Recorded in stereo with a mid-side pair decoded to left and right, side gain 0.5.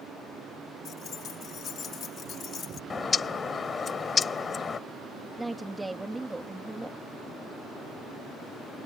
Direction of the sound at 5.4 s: 15° right.